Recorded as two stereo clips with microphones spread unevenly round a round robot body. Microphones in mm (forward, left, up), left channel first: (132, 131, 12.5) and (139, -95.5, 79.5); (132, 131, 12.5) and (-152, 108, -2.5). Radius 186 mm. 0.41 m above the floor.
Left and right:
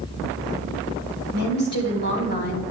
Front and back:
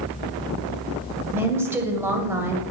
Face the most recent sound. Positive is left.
turn(degrees=105)